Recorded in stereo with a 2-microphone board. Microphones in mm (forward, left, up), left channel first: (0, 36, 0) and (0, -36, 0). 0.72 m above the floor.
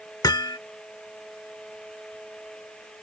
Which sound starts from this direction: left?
Hammering, at 0.2 s.